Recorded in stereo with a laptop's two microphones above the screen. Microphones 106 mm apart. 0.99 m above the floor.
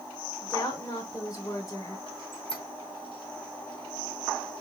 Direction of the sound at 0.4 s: 35° left (ahead or behind).